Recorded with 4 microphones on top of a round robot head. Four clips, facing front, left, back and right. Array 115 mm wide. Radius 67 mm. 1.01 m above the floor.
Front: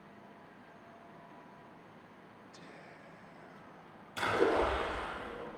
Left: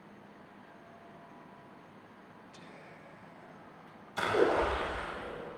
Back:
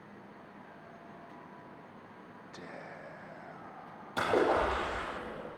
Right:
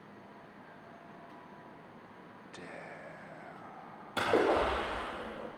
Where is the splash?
125° right, 7.5 m.